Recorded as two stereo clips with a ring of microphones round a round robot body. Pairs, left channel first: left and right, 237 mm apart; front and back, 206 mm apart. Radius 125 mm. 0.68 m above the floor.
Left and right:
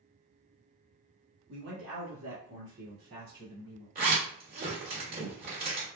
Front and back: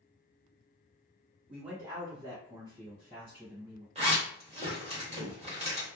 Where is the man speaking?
95° right, 1.2 m; by 3.9 s 125° right, 2.5 m.